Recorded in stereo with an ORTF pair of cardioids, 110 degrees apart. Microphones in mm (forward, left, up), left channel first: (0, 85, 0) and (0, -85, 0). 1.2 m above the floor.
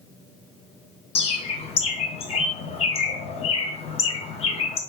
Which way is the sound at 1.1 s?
40° left.